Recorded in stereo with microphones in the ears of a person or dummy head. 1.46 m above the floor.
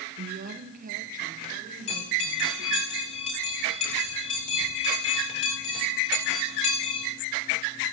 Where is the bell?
35° left (ahead or behind), 9 m.